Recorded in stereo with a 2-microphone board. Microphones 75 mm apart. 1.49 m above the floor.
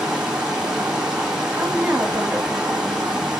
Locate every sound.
0.0 s running water: 5° right (ahead or behind), 3 m
1.5 s a woman speaking: 20° right (ahead or behind), 3 m